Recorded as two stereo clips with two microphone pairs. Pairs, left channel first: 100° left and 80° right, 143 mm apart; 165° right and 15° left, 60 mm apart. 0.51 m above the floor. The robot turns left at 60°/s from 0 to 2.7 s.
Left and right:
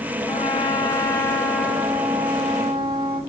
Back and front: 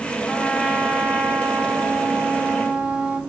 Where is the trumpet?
110° left, 1.5 m; by 3.2 s 35° right, 1.5 m.